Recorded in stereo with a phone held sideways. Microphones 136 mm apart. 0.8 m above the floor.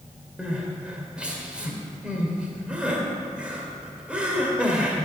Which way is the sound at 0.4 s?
10° right (ahead or behind).